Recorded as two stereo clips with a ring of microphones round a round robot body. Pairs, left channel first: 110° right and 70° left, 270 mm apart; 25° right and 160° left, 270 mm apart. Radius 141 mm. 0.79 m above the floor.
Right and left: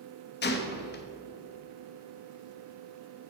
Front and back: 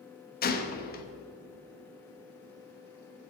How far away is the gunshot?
About 1.1 m.